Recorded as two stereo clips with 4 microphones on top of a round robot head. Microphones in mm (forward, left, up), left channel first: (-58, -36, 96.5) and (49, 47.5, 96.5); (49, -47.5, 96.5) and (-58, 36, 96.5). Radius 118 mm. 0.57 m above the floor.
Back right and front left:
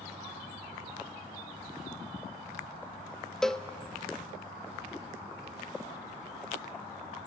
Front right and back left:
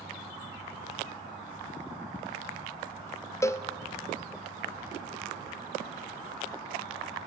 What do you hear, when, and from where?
3.4 s a cowbell: 60° right, 0.9 m